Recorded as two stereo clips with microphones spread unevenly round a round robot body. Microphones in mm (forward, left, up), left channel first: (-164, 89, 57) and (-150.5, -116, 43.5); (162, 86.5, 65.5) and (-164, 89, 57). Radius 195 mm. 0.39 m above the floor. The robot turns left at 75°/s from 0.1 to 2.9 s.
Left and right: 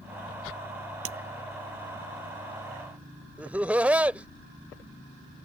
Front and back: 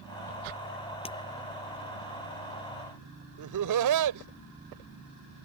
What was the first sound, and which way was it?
Breaking glass, 75° right.